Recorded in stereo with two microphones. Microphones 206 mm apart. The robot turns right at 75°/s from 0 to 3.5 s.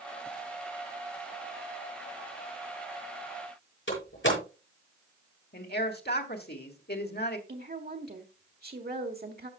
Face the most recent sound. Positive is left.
turn(degrees=-50)  # may be behind; listen again after turning